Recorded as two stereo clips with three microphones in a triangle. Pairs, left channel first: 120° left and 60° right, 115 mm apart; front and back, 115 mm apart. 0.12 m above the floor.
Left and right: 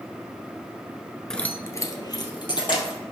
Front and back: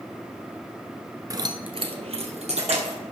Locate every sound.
1.3 s keys jangling: 160° right, 1.0 m; by 3.0 s 165° left, 3 m